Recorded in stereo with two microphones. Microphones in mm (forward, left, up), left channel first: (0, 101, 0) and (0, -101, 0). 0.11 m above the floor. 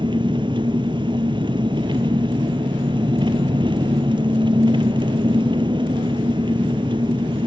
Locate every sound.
0.0 s an engine running: 25° right (ahead or behind), 0.9 m